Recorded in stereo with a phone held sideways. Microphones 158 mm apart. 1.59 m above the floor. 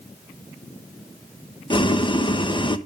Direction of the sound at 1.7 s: 30° left (ahead or behind).